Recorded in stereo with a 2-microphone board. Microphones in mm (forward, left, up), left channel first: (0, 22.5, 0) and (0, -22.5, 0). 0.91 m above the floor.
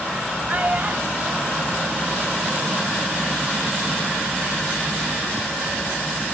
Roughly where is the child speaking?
Right.